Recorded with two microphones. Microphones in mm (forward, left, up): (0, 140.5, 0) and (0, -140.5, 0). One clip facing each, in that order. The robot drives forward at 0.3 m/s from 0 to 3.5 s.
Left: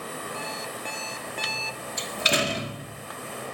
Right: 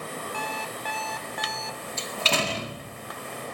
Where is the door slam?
15° left (ahead or behind), 1.6 m.